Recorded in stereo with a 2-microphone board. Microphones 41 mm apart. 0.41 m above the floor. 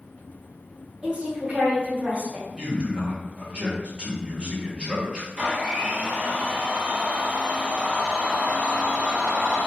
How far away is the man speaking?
About 1.6 m.